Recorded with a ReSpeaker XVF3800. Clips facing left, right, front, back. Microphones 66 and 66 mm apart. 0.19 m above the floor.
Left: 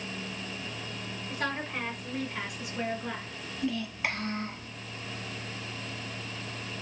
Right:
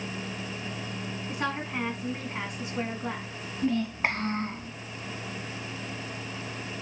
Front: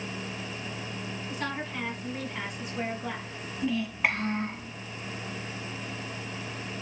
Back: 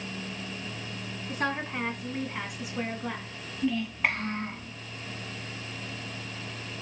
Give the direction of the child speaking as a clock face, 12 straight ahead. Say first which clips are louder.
Right 5 dB, even; 3 o'clock.